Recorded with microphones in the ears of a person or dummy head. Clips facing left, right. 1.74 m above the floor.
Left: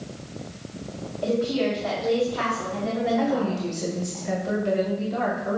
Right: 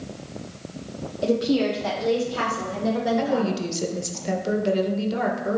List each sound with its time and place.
1.2 s a woman speaking: 35° right (ahead or behind), 0.5 m; by 4.2 s 75° right (ahead or behind), 2.5 m
3.2 s a woman speaking: 50° right (ahead or behind), 0.9 m